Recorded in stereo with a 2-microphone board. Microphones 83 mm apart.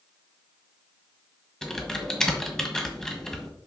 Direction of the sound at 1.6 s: 5° left (ahead or behind).